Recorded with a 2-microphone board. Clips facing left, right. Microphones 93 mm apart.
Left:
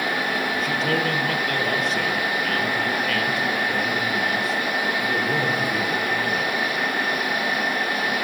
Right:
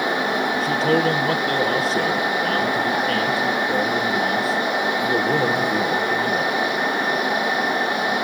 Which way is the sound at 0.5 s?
35° right (ahead or behind).